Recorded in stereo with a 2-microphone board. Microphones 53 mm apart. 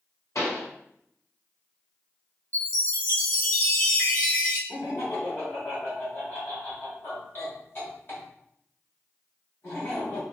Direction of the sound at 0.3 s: 65° left (ahead or behind).